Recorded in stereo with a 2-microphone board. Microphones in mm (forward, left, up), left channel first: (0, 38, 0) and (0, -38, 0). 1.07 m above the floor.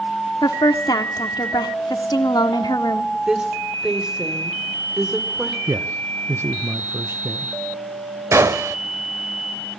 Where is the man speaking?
35° right (ahead or behind), 1.0 m.